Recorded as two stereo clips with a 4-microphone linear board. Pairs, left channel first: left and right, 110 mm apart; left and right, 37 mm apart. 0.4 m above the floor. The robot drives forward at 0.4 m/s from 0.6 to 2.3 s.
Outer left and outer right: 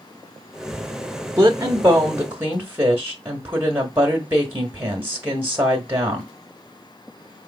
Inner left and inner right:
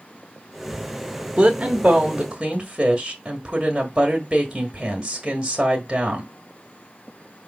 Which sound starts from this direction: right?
A woman speaking, at 1.4 s.